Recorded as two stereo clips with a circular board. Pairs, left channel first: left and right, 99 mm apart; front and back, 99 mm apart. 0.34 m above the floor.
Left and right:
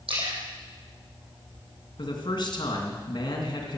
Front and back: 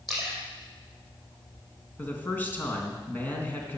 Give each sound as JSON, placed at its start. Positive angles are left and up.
{"t": 0.1, "sound": "a splash", "azimuth_deg": -90, "distance_m": 6.0}
{"t": 2.0, "sound": "a man speaking", "azimuth_deg": 70, "distance_m": 3.0}